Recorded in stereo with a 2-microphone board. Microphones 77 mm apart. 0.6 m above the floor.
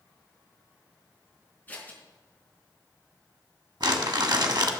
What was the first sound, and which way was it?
Scissors, 20° left (ahead or behind).